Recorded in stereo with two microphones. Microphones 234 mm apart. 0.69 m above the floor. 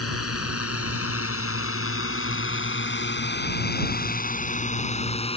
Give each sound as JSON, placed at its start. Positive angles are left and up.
{"t": 0.0, "sound": "a drone", "side_deg": 85}